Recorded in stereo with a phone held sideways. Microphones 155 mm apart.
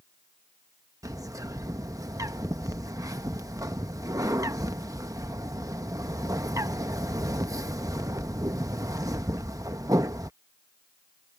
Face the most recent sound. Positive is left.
turn(degrees=-20)  # may be behind; listen again after turning